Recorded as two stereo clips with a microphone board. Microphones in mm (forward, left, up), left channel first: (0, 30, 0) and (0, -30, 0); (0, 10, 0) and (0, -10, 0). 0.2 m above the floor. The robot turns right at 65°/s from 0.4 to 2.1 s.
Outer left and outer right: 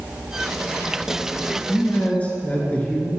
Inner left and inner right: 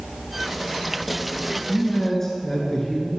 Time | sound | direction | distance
1.7 | a man speaking | 45° left (ahead or behind) | 3 m